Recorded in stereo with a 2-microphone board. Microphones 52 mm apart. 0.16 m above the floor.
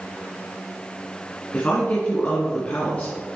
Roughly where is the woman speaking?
Left.